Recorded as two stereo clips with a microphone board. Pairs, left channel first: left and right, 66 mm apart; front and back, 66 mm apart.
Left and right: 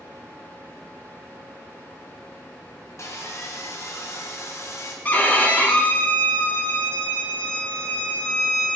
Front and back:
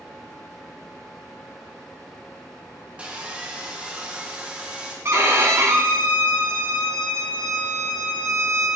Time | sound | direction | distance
3.0 | sawing | 115° left | 0.9 m
5.0 | a violin | 145° left | 0.8 m